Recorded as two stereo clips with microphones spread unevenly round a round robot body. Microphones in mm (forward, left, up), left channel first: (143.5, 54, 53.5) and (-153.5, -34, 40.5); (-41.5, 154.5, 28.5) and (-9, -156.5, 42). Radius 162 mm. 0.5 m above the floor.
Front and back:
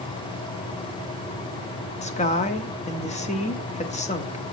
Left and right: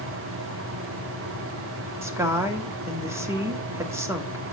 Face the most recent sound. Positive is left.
turn(degrees=-10)